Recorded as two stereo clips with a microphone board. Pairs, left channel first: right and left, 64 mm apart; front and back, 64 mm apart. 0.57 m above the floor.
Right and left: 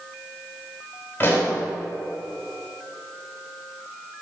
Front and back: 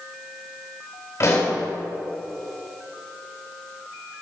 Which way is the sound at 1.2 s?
35° right.